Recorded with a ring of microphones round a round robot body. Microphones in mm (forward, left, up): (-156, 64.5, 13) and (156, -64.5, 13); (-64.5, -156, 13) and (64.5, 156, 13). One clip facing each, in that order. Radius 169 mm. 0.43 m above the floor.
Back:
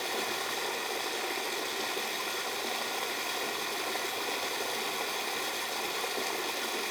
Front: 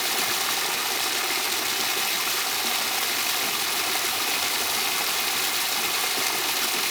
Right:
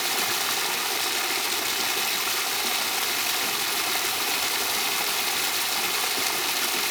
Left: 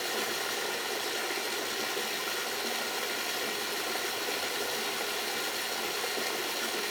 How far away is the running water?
About 0.7 m.